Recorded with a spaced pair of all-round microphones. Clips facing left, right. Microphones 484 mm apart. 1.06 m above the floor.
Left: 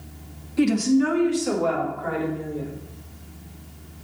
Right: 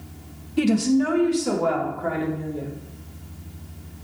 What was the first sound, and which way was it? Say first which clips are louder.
A woman speaking: even; 55° right (ahead or behind).